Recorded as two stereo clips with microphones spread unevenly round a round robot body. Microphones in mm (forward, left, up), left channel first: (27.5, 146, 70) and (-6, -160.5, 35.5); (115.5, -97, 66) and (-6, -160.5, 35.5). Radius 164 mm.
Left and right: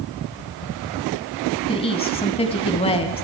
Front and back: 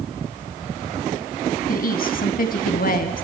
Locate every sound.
1.7 s a woman speaking: 10° left, 3 m